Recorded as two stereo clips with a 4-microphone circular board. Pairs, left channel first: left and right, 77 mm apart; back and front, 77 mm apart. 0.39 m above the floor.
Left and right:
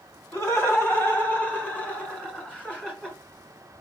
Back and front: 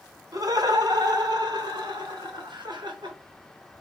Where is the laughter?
35° left, 3 m; by 3.2 s 15° left, 4 m.